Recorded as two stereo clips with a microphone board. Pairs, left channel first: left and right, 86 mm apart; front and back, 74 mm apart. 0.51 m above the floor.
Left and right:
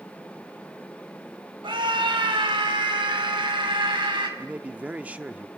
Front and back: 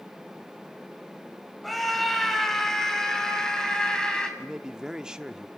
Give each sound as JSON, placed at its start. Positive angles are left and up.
{"t": 1.6, "sound": "a scream", "azimuth_deg": -90, "distance_m": 3.0}
{"t": 4.4, "sound": "a man speaking", "azimuth_deg": -125, "distance_m": 0.7}